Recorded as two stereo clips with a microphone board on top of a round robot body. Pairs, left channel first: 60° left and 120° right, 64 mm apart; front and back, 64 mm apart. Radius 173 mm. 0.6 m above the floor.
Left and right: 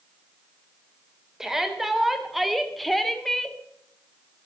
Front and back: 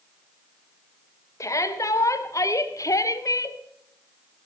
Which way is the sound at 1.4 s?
35° right.